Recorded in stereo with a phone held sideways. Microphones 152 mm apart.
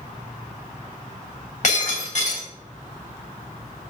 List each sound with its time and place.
1.6 s breaking glass: 55° left (ahead or behind), 3 m